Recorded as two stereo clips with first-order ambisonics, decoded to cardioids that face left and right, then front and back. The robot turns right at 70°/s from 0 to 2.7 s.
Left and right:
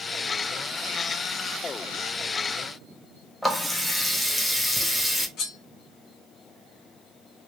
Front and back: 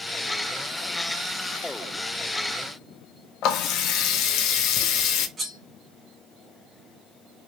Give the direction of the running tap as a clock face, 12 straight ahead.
12 o'clock.